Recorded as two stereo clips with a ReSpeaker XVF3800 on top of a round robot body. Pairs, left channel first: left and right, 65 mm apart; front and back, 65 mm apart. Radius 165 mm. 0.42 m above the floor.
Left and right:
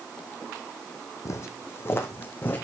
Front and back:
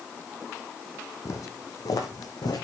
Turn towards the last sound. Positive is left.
turn(degrees=30)